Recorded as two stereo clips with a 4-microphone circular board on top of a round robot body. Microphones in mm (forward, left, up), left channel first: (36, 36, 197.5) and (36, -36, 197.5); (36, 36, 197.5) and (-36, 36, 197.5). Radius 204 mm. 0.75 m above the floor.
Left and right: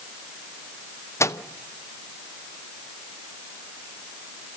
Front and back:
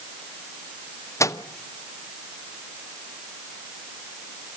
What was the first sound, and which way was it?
A microwave, 40° left.